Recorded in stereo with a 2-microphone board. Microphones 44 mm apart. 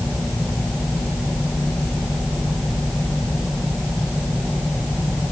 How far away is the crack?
No crack in this recording.